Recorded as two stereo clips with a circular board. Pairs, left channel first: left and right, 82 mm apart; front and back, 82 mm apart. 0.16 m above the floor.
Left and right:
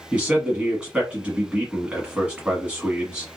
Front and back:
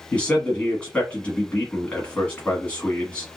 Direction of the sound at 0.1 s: 40° right.